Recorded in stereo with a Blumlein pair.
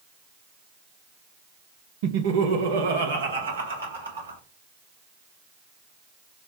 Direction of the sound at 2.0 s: 50° right.